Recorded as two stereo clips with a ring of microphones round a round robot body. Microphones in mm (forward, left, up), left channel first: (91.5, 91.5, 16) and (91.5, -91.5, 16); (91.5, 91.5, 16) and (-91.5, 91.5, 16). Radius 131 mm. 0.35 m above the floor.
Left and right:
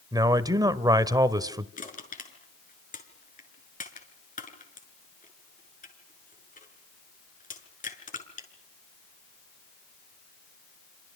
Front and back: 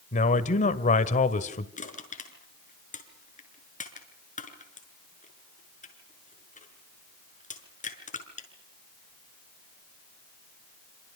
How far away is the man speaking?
About 1.8 m.